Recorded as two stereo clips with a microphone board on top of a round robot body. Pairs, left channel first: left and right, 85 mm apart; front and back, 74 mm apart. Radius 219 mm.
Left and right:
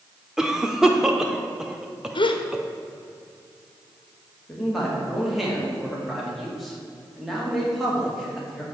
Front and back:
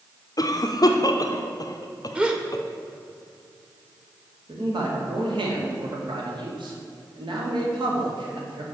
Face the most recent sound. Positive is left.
turn(degrees=180)